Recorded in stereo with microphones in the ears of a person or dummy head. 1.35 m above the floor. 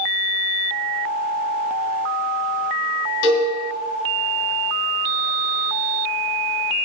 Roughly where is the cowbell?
Left.